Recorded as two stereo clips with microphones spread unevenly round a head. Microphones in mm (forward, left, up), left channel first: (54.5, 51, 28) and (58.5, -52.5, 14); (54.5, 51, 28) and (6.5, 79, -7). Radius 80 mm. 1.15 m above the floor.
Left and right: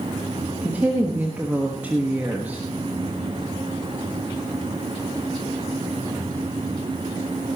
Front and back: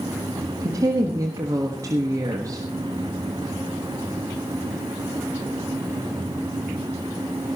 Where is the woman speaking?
170° right, 1.3 m.